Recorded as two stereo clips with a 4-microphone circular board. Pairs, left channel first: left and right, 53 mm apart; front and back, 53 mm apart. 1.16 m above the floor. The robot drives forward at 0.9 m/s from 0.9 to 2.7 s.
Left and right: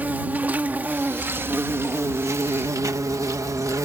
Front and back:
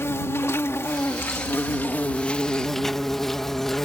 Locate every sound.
0.0 s an insect: 30° right; by 3.8 s 85° right